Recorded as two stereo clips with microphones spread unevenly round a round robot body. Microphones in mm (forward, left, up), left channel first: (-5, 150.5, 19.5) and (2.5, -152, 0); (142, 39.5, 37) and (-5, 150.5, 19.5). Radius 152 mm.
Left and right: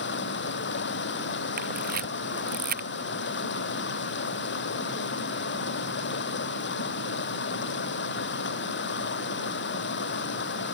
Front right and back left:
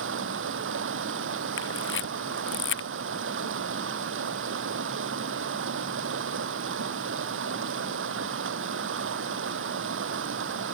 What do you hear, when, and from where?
0.0 s running water: 145° left
1.6 s a camera shutter: 25° right